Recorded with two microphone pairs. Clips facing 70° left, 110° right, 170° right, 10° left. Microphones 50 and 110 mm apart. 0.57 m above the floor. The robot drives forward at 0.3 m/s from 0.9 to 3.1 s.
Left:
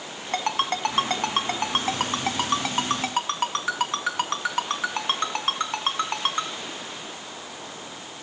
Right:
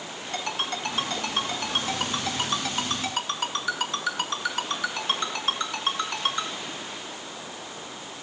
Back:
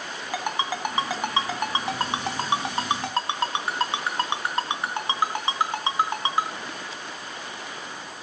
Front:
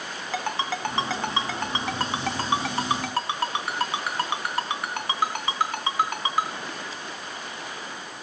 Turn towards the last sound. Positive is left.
turn(degrees=125)